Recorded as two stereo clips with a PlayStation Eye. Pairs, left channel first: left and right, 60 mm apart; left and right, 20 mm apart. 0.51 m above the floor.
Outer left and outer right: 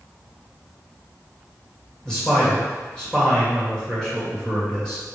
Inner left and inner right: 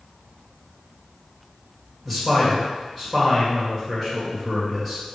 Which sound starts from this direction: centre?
A man speaking, at 2.0 s.